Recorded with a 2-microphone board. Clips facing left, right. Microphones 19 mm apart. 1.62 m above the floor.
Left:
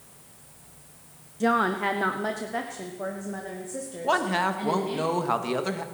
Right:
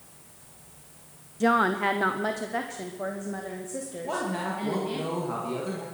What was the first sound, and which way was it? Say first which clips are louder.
A woman speaking: right 1 dB; 15° right (ahead or behind).